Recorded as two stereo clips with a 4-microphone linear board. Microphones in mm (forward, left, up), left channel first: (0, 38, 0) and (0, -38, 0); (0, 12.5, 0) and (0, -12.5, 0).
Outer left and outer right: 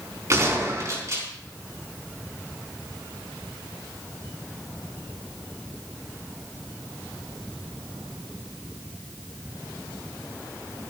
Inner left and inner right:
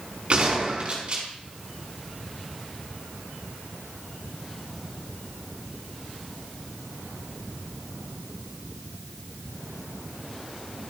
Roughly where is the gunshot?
Right.